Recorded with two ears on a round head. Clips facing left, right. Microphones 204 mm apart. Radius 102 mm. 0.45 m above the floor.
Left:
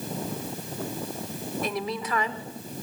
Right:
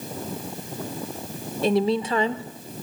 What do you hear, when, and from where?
1.6 s a woman speaking: 25° right (ahead or behind), 0.9 m